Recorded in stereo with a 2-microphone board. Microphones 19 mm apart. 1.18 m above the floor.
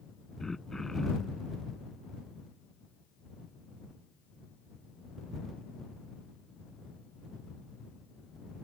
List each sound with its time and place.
0.4 s throat clearing: 30° left (ahead or behind)